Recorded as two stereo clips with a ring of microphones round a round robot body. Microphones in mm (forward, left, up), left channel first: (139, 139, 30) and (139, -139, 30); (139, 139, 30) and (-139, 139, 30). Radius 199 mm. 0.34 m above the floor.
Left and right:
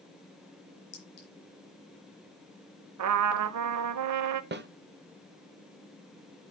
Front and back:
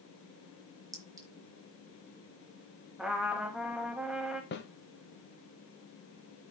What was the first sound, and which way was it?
A clink, 100° left.